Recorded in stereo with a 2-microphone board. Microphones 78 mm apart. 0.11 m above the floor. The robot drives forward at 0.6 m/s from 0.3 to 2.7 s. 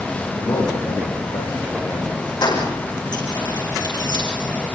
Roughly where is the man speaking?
Left.